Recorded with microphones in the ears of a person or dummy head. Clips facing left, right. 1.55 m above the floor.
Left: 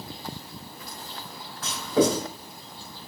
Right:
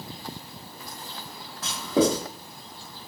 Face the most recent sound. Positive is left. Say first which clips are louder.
# even
turn(degrees=-15)  # may be behind; listen again after turning